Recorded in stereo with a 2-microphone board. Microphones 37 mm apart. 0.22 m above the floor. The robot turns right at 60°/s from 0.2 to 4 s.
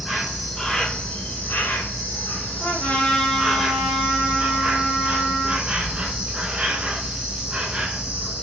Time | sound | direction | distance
0.0 | an insect | 15° right | 0.9 m
2.6 | a trumpet | 130° left | 2.5 m